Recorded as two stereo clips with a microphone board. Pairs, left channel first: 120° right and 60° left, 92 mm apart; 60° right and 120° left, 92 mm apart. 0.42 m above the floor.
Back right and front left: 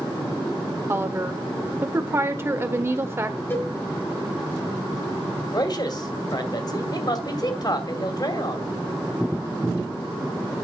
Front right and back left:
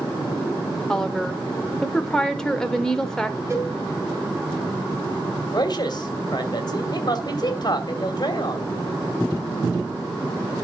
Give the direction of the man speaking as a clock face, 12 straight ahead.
3 o'clock.